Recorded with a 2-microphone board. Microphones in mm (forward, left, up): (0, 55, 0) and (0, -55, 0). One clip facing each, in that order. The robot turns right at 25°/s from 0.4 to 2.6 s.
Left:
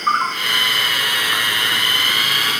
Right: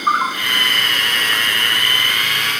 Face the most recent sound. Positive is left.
turn(degrees=45)